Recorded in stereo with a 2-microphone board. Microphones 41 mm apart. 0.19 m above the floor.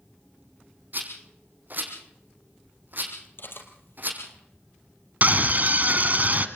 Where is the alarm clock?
I don't hear an alarm clock.